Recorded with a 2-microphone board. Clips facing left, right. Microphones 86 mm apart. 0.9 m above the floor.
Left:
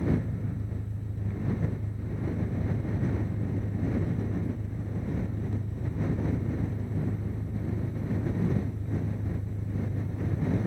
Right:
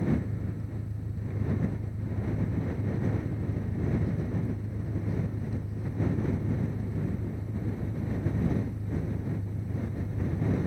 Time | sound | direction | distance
0.0 | an engine running | 5° right (ahead or behind) | ?